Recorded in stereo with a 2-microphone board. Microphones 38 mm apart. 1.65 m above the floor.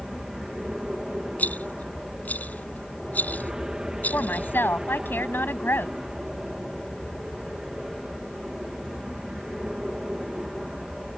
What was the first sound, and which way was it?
An aircraft, 20° right (ahead or behind).